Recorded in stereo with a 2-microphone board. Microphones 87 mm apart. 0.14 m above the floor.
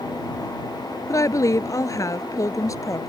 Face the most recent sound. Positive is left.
turn(degrees=40)  # may be behind; listen again after turning